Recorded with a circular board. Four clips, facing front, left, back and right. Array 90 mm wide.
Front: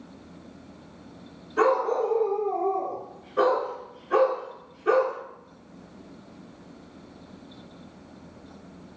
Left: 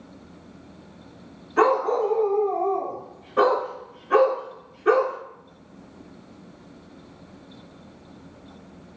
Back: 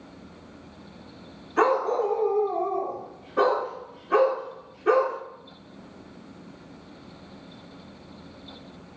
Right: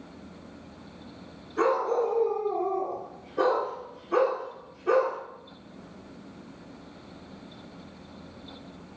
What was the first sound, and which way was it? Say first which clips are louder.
A dog barking: left 5 dB, even; 125° left.